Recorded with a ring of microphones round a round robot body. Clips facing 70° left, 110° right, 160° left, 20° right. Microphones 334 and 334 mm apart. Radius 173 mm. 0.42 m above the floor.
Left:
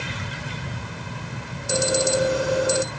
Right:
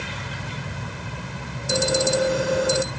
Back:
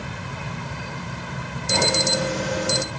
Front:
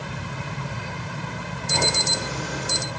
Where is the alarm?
160° left, 3.5 m.